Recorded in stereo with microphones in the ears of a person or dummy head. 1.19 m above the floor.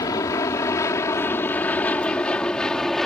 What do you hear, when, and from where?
0.0 s an aircraft: 20° left (ahead or behind); by 3.1 s centre (ahead or behind)